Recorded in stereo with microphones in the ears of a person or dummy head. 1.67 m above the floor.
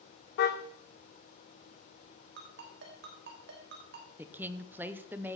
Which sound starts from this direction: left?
A car horn, at 0.4 s.